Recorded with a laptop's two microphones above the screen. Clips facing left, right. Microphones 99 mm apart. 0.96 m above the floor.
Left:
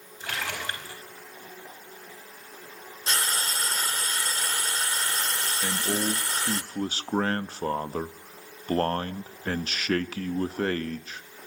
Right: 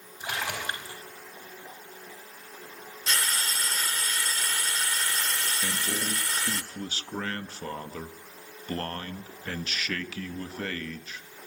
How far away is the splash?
About 4.5 m.